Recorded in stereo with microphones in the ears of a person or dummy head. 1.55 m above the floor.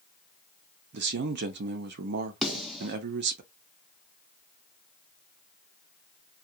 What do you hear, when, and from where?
0.9 s a man speaking: 55° right (ahead or behind), 0.6 m
2.4 s a snare drum: centre (ahead or behind), 0.6 m